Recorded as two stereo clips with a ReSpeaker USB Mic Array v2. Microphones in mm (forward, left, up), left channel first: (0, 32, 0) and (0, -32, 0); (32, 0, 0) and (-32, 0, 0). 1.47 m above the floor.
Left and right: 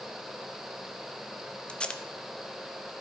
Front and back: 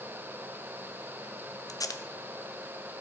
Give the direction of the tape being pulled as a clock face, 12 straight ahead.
11 o'clock.